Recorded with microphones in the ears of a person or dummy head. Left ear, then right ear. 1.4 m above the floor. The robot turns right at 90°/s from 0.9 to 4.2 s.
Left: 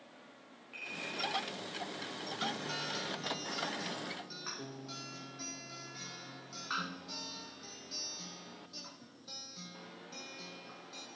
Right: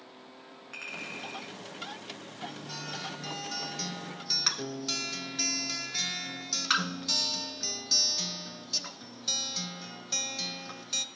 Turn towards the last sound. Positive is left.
turn(degrees=-80)